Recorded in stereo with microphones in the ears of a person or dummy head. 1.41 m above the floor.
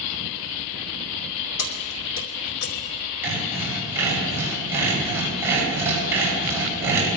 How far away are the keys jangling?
About 1.2 m.